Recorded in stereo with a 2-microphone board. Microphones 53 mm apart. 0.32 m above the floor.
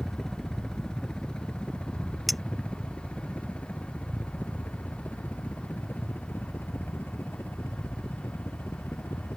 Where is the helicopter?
5° left (ahead or behind); by 9.4 s 50° left (ahead or behind).